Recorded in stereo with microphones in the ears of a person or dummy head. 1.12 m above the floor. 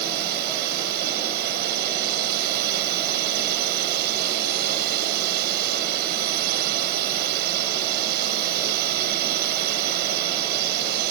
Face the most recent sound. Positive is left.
turn(degrees=-55)  # may be behind; listen again after turning